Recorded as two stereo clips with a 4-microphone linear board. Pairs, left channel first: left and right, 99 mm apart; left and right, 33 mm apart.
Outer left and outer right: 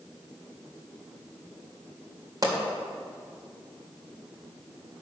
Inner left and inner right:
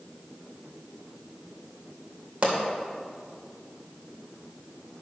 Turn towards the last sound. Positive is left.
turn(degrees=-40)  # may be behind; listen again after turning